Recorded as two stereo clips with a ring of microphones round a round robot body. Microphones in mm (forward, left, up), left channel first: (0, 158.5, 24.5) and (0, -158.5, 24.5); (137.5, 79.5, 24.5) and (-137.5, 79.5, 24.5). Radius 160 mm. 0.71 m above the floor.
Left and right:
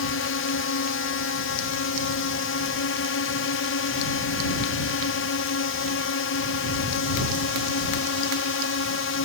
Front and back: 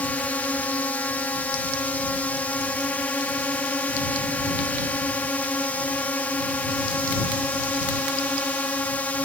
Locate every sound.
0.0 s a drone: 80° left